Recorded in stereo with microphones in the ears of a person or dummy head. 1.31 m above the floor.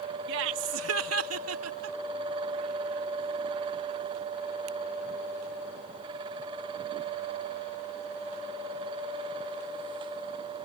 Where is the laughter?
70° right (ahead or behind); by 2.0 s 75° right (ahead or behind).